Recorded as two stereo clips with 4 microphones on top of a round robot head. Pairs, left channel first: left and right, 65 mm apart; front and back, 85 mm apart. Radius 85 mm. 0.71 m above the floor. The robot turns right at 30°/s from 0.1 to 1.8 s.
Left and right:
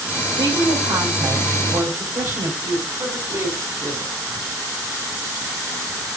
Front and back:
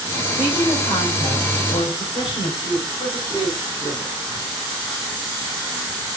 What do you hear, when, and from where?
0.4 s a woman speaking: 90° right, 3.5 m; by 2.5 s 45° right, 3.5 m
2.6 s a woman speaking: 45° right, 4.5 m